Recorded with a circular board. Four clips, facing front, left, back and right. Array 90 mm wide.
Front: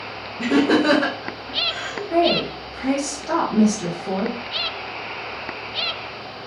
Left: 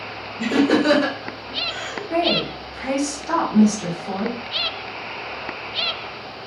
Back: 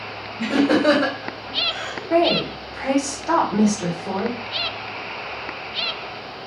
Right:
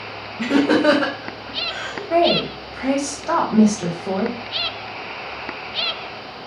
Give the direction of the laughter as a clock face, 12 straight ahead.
3 o'clock.